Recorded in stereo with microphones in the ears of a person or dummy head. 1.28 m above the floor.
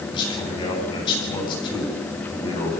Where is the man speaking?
30° left (ahead or behind), 8.5 m.